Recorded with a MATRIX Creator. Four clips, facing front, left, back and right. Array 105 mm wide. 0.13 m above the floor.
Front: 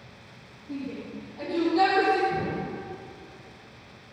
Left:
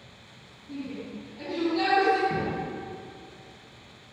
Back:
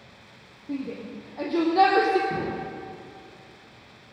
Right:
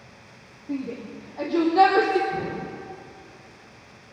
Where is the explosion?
135° left, 9.5 m.